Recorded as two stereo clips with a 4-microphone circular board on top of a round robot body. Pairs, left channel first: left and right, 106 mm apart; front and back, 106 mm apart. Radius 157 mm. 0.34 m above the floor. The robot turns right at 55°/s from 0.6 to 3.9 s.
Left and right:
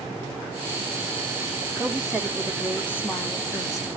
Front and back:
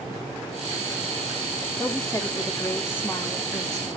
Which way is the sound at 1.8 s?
20° right.